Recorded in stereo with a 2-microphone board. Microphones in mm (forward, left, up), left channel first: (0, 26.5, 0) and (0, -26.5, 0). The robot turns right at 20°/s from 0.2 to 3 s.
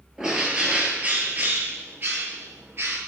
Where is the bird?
165° right, 1.5 m; by 3.0 s 110° right, 1.5 m.